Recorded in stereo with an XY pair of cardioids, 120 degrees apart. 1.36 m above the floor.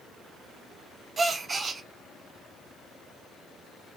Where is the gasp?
30° right, 0.6 m.